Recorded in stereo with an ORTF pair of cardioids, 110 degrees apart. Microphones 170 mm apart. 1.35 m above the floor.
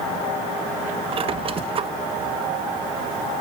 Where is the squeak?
35° right, 1.5 m.